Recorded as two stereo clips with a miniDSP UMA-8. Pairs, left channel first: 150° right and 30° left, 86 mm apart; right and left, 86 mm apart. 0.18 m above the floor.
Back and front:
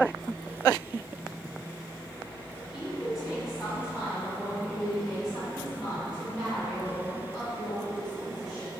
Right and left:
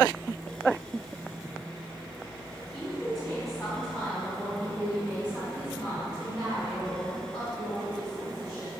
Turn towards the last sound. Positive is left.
turn(degrees=120)